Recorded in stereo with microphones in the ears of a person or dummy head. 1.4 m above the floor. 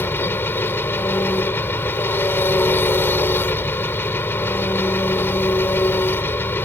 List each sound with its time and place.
0.0 s an engine running: 15° left (ahead or behind)